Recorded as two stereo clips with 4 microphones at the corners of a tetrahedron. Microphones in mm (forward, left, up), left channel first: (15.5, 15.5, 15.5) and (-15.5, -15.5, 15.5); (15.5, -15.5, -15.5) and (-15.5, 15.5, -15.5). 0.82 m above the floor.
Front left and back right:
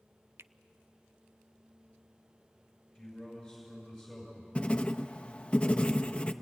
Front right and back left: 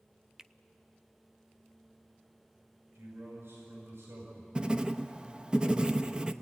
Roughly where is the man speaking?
Behind left.